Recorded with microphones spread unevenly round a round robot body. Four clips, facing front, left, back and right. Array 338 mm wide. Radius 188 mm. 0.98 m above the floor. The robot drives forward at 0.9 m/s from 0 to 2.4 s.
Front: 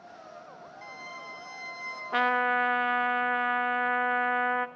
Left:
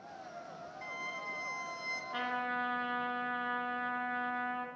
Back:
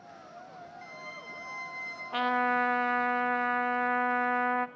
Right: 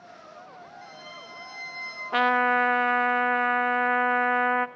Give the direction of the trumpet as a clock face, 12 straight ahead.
2 o'clock.